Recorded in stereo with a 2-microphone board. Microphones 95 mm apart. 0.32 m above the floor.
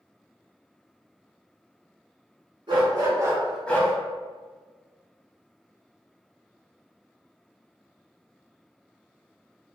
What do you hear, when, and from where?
2.7 s a dog barking: 55° right (ahead or behind), 1.1 m; by 3.9 s 35° left (ahead or behind), 0.6 m